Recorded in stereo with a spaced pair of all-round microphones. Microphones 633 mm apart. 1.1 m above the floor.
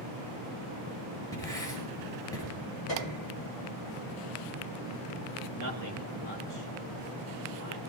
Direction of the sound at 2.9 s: 45° left (ahead or behind).